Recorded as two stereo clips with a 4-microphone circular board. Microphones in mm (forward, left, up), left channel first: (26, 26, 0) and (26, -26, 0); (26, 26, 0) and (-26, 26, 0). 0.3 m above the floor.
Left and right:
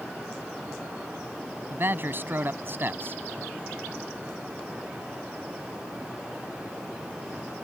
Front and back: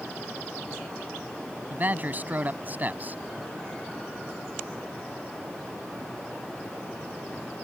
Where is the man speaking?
130° right.